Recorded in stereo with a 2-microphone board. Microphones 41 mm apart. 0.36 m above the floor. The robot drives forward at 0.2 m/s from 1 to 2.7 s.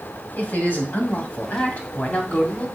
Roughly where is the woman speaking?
Left.